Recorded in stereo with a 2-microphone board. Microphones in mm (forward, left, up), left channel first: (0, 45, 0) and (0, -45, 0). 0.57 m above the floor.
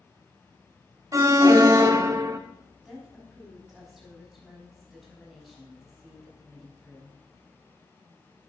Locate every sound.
1.1 s an alarm: 35° right (ahead or behind), 0.9 m
2.9 s a woman speaking: 5° right (ahead or behind), 4.5 m